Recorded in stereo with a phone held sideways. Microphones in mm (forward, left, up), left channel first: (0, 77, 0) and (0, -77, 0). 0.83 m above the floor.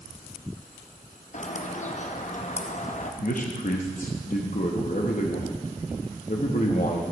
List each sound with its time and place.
1.3 s a bird: 50° left (ahead or behind), 0.6 m
3.2 s a man speaking: 60° left (ahead or behind), 0.9 m